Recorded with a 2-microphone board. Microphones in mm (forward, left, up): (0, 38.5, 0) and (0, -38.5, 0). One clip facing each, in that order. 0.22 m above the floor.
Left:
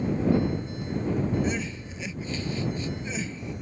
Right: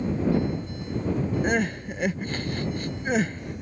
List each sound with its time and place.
1.4 s crying: 60° right (ahead or behind)